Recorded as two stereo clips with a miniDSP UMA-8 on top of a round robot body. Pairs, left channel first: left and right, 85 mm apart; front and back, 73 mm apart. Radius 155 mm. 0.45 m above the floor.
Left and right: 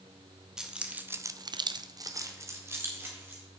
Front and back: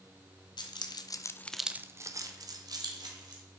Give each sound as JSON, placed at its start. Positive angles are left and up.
{"t": 0.6, "sound": "keys jangling", "azimuth_deg": -5, "distance_m": 1.3}